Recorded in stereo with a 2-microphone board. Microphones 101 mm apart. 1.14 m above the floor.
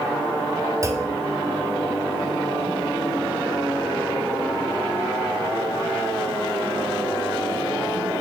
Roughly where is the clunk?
Right.